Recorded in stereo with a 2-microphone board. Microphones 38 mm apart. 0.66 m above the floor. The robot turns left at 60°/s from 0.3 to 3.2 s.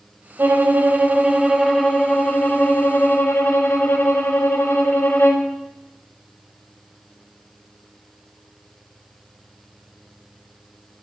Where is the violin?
110° right, 1.1 m; by 5.5 s 85° left, 1.1 m.